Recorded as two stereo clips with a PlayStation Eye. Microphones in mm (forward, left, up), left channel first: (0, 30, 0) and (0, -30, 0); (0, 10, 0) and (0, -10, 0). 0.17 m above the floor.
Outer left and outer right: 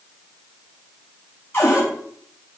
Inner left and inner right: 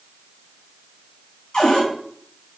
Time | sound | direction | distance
1.5 | a cupboard door | 35° left (ahead or behind) | 3.5 m